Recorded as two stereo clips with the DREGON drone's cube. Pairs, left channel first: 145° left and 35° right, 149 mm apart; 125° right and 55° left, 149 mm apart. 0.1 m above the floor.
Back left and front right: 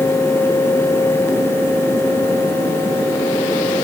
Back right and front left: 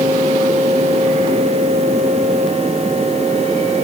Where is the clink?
I don't hear a clink.